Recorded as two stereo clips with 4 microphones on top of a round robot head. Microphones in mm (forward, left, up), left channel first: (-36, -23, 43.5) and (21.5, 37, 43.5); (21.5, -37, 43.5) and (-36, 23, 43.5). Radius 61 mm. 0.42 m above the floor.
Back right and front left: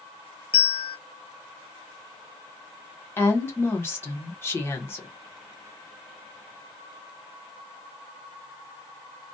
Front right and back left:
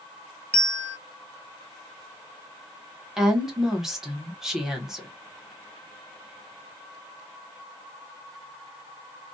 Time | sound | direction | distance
0.5 | a bell | 125° right | 0.8 m
3.2 | a woman speaking | 145° right | 1.3 m